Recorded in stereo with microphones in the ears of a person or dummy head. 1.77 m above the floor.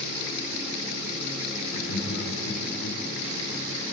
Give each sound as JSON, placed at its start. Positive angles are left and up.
{"t": 1.7, "sound": "laughter", "side_deg": 85, "distance_m": 5.0}